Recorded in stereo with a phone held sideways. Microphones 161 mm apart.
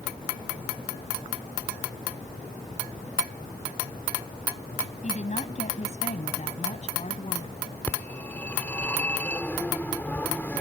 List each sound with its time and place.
5.0 s a woman speaking: 45° left (ahead or behind)
7.9 s a phone ringing: 10° left (ahead or behind)